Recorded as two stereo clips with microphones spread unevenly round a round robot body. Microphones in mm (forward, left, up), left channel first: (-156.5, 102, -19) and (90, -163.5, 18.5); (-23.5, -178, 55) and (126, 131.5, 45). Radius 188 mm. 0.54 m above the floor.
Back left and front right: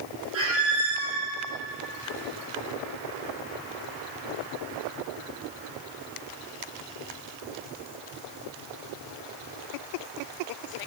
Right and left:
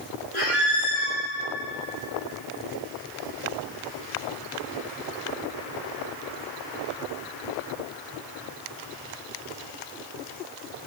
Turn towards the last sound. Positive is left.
turn(degrees=-100)